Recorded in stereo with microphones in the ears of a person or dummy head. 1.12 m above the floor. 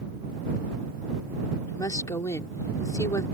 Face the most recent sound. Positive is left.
turn(degrees=15)  # may be behind; listen again after turning